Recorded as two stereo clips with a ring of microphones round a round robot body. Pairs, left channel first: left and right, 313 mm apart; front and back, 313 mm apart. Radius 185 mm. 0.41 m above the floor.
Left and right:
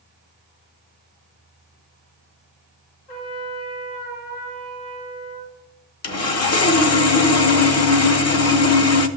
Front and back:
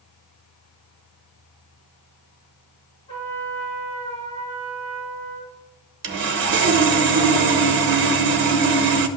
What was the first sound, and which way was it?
A trumpet, 75° left.